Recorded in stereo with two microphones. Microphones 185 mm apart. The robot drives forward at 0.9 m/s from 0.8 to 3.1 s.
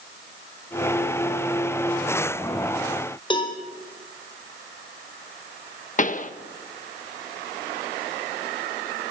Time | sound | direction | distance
3.3 | a cowbell | 25° left (ahead or behind) | 3.5 m
6.0 | a pop | 40° left (ahead or behind) | 1.0 m